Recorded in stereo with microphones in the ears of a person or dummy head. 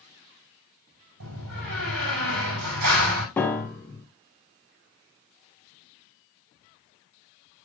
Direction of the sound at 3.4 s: 10° left (ahead or behind).